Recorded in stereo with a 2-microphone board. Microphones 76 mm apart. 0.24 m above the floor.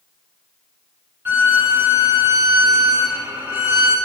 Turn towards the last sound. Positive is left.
turn(degrees=-25)  # may be behind; listen again after turning